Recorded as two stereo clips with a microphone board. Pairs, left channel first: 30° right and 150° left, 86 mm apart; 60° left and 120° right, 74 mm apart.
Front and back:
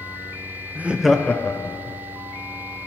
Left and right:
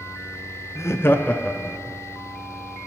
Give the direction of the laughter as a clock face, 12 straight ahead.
9 o'clock.